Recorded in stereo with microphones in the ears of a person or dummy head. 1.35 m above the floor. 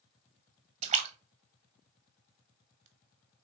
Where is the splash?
30° right (ahead or behind), 0.7 m.